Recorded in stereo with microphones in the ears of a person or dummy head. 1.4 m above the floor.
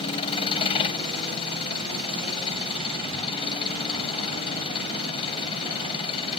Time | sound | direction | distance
0.0 | an engine running | 30° left (ahead or behind) | ?